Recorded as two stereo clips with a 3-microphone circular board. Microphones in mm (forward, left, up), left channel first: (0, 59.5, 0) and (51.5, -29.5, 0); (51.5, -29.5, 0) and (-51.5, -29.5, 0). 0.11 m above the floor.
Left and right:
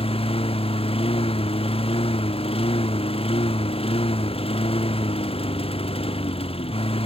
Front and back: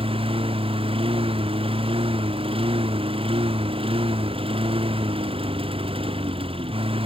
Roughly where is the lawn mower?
Behind left.